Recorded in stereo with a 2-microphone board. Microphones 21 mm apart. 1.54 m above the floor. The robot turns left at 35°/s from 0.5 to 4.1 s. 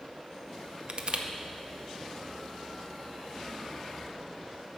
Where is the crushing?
50° right (ahead or behind), 0.7 m.